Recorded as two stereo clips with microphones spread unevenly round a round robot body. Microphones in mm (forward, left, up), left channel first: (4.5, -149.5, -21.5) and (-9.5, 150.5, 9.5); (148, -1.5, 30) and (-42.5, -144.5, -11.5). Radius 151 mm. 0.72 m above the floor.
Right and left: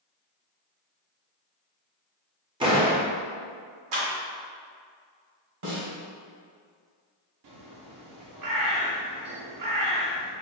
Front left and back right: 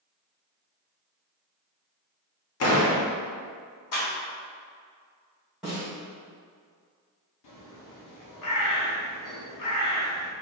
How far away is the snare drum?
About 1.9 m.